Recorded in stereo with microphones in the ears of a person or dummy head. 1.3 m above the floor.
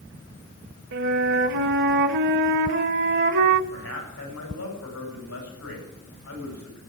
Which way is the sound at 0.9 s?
60° right (ahead or behind).